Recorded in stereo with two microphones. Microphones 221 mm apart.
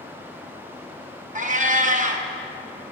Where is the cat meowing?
35° right (ahead or behind), 0.6 m.